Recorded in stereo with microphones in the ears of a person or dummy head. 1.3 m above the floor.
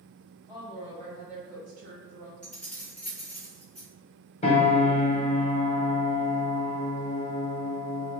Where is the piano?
30° left (ahead or behind), 0.8 m.